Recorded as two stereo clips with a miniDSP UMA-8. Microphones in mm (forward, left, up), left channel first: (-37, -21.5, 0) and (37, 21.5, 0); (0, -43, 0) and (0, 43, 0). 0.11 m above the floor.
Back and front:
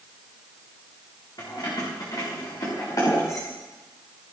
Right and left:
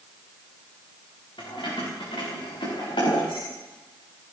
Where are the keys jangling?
110° right, 6 m; by 3.5 s 100° right, 8 m.